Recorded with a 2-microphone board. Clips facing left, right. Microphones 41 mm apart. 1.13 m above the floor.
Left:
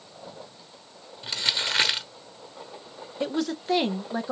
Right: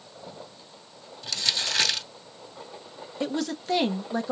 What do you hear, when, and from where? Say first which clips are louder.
1.2 s crumpling: left 1 dB; 30° left (ahead or behind), 0.9 m
3.2 s a woman speaking: left 1 dB; 5° left (ahead or behind), 0.9 m